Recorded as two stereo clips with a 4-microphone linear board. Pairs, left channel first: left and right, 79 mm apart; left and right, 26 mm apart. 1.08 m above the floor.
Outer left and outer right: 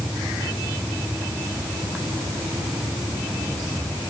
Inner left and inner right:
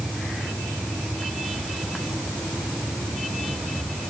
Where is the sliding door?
No sliding door in this recording.